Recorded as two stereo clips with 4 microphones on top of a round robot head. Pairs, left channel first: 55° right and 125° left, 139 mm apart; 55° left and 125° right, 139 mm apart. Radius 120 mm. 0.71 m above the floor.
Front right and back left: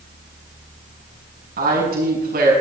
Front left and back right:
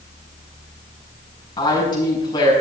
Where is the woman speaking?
115° left, 6.5 m.